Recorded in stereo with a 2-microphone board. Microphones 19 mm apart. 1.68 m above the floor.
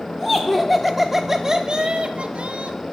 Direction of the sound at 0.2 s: 35° left (ahead or behind).